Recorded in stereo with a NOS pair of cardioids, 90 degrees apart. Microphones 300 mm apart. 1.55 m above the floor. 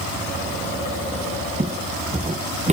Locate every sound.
1.6 s footsteps: 25° right